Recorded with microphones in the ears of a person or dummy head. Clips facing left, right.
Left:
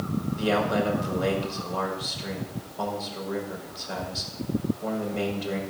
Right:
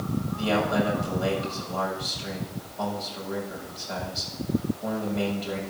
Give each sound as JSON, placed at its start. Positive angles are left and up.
{"t": 0.4, "sound": "a man speaking", "side_deg": 50, "distance_m": 5.0}